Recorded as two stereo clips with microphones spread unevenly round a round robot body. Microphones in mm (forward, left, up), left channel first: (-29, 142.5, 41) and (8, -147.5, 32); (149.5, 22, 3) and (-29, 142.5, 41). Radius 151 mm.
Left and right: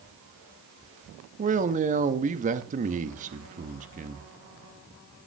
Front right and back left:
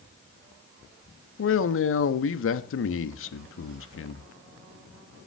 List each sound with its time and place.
1.4 s a man speaking: 15° right, 1.0 m